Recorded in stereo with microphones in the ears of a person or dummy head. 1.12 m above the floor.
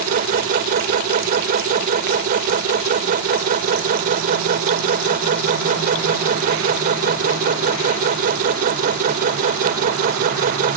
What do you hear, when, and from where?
0.0 s a machine running: 55° right (ahead or behind)